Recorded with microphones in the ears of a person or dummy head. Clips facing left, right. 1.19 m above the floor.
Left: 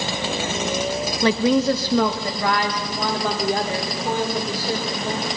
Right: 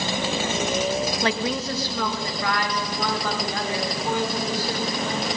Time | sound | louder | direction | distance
1.2 | a woman speaking | left 8 dB | 80° left | 0.7 m